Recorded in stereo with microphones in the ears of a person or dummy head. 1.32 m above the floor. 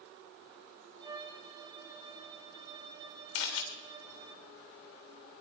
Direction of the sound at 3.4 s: 65° left (ahead or behind).